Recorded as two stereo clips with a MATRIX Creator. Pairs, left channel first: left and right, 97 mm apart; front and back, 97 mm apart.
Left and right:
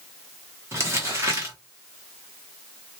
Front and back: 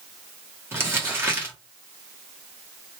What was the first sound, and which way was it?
Crumpling, 130° right.